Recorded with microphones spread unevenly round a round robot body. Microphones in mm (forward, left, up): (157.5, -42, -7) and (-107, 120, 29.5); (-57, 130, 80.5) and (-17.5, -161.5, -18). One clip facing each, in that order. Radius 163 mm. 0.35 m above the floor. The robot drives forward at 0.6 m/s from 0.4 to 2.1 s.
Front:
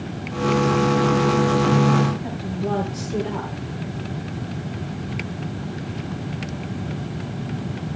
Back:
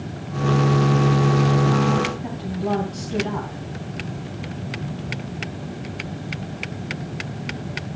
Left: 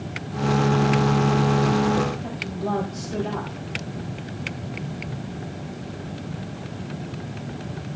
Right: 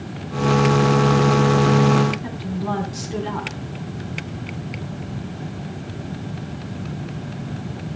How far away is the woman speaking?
About 2.5 m.